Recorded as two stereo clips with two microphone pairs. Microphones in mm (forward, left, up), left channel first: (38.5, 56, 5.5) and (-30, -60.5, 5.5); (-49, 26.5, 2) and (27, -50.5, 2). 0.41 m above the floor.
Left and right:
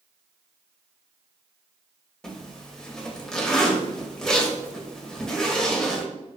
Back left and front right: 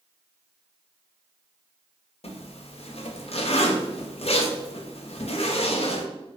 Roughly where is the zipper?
Behind left.